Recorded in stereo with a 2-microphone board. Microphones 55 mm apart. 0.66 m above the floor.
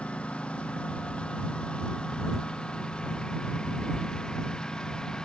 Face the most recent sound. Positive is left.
turn(degrees=15)  # may be behind; listen again after turning